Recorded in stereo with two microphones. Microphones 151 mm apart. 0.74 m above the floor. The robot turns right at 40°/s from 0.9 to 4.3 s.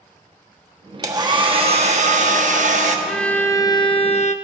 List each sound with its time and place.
1.0 s a hair dryer: 155° right, 1.1 m; by 3.0 s 75° right, 1.1 m
3.1 s a violin: straight ahead, 0.6 m; by 4.3 s 50° left, 0.6 m